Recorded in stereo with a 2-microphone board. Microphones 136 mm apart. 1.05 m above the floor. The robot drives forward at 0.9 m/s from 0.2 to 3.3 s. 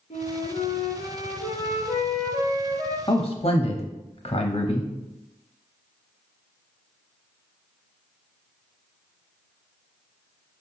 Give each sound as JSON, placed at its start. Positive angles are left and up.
{"t": 0.1, "sound": "a flute", "side_deg": 50, "distance_m": 0.9}
{"t": 3.1, "sound": "a man speaking", "side_deg": 40, "distance_m": 0.9}